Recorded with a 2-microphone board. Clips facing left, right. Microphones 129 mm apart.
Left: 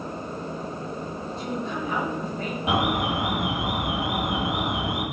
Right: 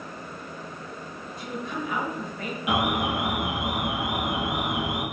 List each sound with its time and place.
1.4 s a woman speaking: 30° left (ahead or behind), 1.3 m
2.7 s an alarm: 30° left (ahead or behind), 1.5 m